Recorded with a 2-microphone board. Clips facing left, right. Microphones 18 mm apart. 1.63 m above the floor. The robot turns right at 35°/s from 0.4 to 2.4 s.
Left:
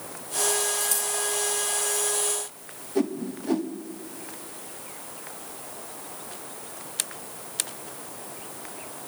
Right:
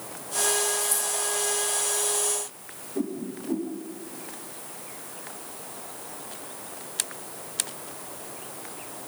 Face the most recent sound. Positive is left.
turn(degrees=55)  # may be behind; listen again after turning